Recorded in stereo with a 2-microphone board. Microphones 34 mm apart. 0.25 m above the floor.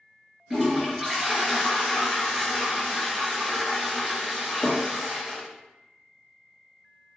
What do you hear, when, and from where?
0.5 s a toilet flushing: 20° right (ahead or behind), 1.1 m